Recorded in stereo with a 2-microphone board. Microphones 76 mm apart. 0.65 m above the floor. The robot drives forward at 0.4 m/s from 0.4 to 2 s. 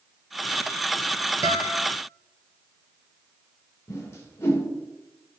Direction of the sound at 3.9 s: 35° left (ahead or behind).